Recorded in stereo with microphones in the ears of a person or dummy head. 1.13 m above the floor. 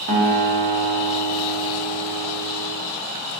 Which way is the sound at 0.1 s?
45° right (ahead or behind).